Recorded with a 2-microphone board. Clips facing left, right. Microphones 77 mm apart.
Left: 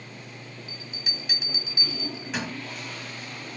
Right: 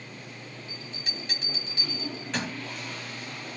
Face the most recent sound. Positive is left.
turn(degrees=5)  # may be behind; listen again after turning